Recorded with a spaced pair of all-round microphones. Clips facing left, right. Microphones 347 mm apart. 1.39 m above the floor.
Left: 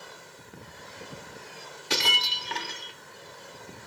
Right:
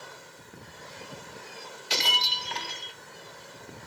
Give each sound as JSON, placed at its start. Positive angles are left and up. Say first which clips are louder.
{"t": 1.9, "sound": "breaking glass", "louder": "left 3 dB", "side_deg": 65, "distance_m": 2.0}